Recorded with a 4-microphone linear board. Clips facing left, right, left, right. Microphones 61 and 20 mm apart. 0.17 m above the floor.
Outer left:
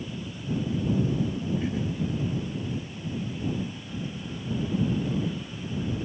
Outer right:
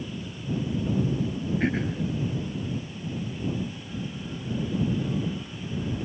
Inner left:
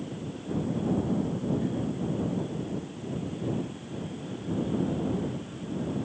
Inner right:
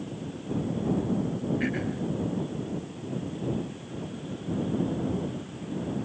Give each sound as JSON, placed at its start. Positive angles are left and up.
{"t": 1.6, "sound": "throat clearing", "side_deg": -65}